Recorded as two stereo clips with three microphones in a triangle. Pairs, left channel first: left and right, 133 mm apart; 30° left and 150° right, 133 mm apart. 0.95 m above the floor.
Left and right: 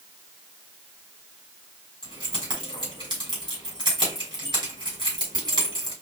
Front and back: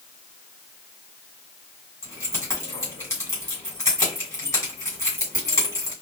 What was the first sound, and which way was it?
Keys jangling, 35° right.